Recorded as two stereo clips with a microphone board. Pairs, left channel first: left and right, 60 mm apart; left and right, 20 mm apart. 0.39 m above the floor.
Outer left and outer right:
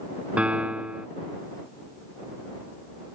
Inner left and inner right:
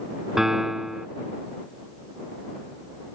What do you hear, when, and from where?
0.4 s a piano: 20° right (ahead or behind)